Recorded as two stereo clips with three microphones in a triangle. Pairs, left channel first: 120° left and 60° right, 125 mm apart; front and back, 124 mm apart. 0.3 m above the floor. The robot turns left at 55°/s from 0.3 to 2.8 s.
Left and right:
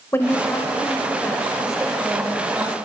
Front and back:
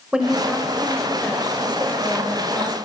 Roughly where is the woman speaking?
Left.